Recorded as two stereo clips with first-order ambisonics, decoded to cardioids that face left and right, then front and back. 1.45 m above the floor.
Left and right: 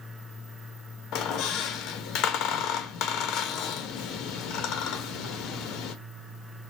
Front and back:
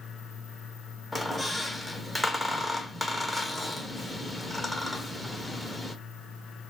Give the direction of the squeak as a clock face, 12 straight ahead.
9 o'clock.